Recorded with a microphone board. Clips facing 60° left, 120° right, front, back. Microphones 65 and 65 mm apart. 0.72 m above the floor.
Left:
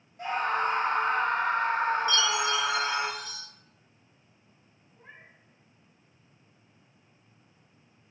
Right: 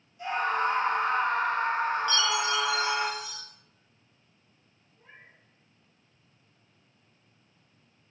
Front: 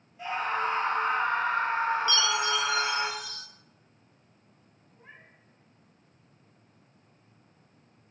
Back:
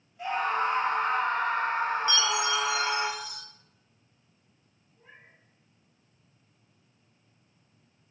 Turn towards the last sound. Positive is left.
turn(degrees=35)